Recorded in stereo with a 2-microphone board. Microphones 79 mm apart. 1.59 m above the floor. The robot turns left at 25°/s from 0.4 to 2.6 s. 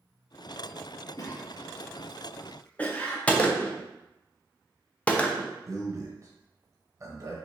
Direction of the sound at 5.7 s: 40° right (ahead or behind).